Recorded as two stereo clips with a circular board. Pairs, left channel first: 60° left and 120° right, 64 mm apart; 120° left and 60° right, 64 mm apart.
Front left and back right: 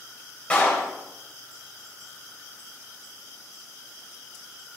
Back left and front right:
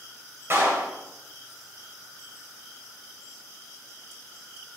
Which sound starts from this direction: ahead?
A clap, at 0.5 s.